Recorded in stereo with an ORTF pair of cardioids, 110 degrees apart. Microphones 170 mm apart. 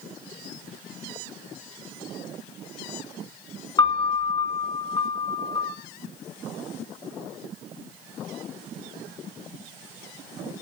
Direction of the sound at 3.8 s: 25° left.